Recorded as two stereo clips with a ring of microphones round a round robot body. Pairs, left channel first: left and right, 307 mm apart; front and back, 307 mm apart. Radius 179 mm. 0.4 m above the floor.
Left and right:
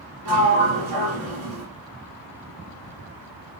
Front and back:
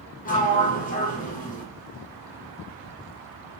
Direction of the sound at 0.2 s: 65° right.